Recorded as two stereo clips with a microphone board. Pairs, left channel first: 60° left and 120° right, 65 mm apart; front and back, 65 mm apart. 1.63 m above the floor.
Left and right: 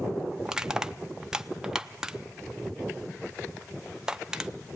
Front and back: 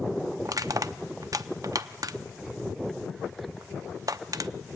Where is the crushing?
160° left, 0.6 m.